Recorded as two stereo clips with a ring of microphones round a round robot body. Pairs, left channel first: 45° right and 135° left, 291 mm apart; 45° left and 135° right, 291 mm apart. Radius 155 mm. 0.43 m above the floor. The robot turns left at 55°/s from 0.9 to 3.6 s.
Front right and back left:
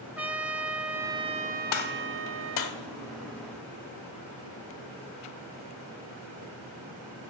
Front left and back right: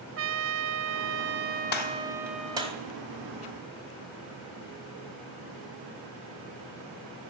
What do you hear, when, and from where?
0.2 s a trumpet: 140° right, 0.7 m; by 2.7 s 120° left, 0.7 m
1.7 s a gunshot: 10° right, 1.6 m; by 2.8 s 70° right, 1.6 m